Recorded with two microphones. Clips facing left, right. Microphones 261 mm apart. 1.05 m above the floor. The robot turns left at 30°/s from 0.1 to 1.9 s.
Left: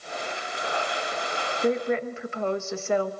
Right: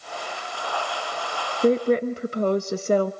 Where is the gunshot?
I don't hear a gunshot.